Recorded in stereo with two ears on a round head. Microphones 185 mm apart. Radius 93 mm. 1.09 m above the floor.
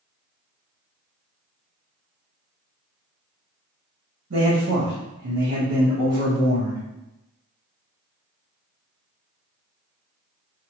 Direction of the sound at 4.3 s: 70° right (ahead or behind).